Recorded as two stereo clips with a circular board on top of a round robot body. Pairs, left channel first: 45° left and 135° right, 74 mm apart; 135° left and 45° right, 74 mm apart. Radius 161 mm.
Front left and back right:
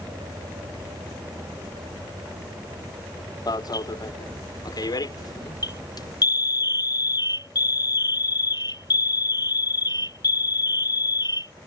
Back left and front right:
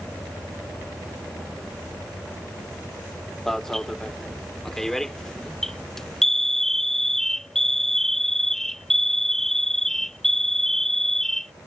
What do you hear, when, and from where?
3.5 s an alarm: 55° left